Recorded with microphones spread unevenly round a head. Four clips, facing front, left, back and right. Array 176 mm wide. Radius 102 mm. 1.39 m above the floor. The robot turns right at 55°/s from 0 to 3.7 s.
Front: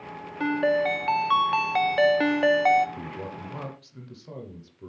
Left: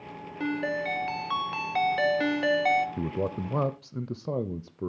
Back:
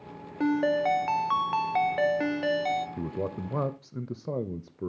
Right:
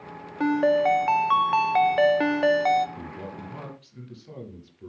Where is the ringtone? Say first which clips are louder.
Right 9 dB, front 1 dB; 150° right, 0.5 m; by 2.9 s 15° right, 0.5 m.